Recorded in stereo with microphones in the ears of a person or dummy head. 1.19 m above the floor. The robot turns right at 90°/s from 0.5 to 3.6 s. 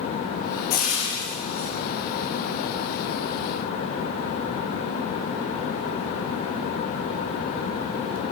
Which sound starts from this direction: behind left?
Frying, at 0.7 s.